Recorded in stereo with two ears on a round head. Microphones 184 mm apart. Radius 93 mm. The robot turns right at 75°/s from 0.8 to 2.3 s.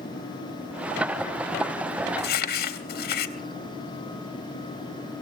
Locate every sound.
2.2 s crumpling: 55° left (ahead or behind), 1.3 m; by 3.4 s 50° left (ahead or behind), 1.3 m